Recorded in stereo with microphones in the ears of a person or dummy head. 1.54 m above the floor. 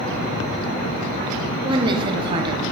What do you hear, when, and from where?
1.6 s a woman speaking: 30° right (ahead or behind), 1.0 m